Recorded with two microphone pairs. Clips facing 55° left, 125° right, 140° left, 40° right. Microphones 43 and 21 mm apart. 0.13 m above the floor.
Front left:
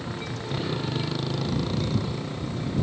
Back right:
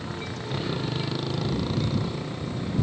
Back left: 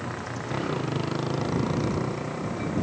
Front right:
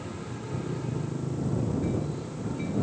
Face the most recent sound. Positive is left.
turn(degrees=150)